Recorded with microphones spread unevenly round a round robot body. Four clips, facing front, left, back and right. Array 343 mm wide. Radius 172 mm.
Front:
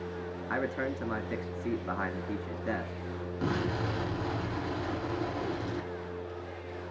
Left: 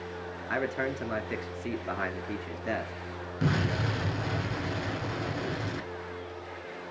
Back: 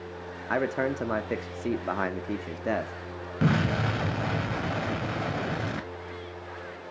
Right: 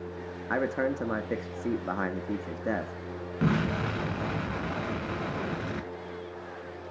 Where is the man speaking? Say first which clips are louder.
Right 3 dB, back 6 dB; 145° right, 1.0 m.